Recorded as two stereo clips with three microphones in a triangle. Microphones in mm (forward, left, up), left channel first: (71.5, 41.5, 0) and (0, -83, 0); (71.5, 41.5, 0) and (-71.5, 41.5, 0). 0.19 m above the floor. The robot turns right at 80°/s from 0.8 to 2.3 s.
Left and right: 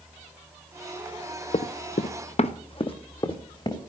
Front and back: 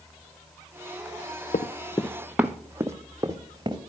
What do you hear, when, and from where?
1.5 s running footsteps: 15° left, 0.7 m; by 3.8 s 120° left, 1.6 m